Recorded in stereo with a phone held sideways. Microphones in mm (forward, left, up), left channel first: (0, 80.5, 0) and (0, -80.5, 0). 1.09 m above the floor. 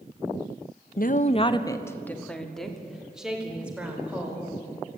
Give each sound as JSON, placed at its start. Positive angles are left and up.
{"t": 1.0, "sound": "a woman speaking", "side_deg": 65, "distance_m": 0.9}